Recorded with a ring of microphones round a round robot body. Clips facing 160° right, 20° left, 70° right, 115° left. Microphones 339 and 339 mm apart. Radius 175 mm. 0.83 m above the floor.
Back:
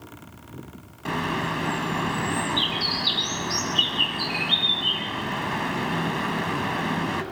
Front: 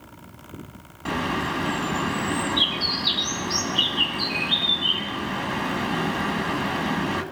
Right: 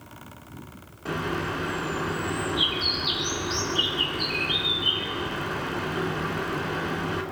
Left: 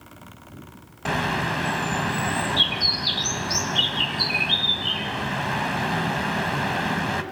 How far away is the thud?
I don't hear a thud.